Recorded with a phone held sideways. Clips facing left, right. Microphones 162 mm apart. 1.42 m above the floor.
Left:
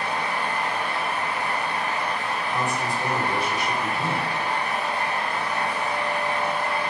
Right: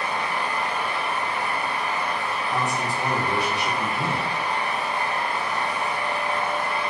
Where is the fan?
65° left (ahead or behind), 1.0 m.